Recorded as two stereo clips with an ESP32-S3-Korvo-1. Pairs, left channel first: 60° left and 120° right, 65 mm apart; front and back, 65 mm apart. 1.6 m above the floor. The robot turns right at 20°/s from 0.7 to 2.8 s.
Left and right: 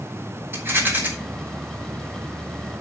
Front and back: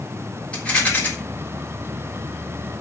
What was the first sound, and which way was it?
A rattle, 70° right.